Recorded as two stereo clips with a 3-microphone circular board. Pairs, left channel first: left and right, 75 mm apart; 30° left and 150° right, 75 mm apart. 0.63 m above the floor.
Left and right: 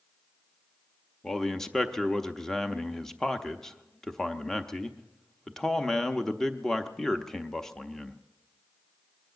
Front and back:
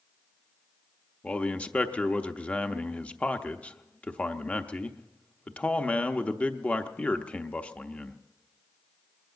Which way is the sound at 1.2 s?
20° left.